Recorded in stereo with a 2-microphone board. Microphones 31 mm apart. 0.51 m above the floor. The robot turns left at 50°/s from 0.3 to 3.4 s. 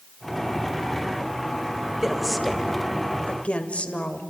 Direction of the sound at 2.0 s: 165° right.